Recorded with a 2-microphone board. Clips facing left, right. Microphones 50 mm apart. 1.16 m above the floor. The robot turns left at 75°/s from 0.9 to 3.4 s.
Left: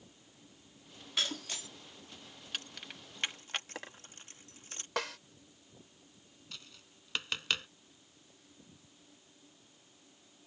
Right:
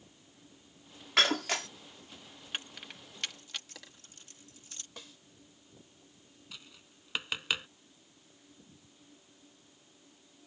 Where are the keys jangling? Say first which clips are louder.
Right 2 dB; 25° right (ahead or behind); by 4.9 s 40° left (ahead or behind).